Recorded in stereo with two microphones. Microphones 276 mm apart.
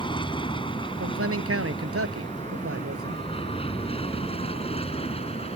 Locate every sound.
0.0 s an aircraft: 20° left (ahead or behind)
1.0 s a man speaking: 60° right (ahead or behind)